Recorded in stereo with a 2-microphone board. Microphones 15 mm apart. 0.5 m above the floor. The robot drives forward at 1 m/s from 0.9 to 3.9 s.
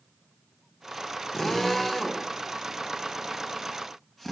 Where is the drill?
40° left (ahead or behind), 1.9 m; by 4.3 s 20° left (ahead or behind), 4 m.